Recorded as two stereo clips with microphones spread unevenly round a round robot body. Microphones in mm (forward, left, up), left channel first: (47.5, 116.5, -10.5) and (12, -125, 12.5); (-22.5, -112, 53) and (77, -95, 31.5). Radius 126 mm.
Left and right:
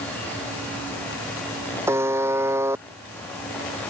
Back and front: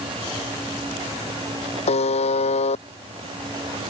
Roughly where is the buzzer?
Behind.